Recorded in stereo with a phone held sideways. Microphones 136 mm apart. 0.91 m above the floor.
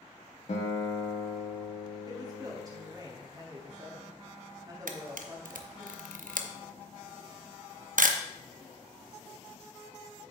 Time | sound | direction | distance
0.5 | a guitar | 55° left (ahead or behind) | 1.8 m
2.1 | a woman speaking | 30° right (ahead or behind) | 2 m
4.9 | a camera shutter | 85° right | 0.7 m